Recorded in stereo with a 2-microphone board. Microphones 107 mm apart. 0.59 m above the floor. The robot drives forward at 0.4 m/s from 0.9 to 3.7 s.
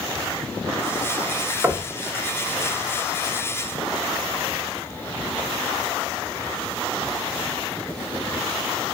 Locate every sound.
1.6 s knocking: 20° right (ahead or behind), 0.6 m